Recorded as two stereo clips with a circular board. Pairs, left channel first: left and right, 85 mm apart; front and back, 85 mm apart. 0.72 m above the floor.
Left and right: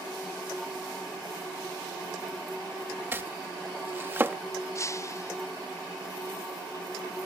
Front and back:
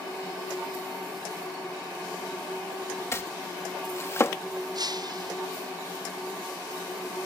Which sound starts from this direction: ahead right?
Chopping, at 3.1 s.